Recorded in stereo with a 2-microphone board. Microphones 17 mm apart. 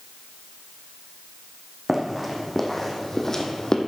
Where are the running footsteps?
5° right (ahead or behind), 2 m; by 3.8 s 35° left (ahead or behind), 1.5 m.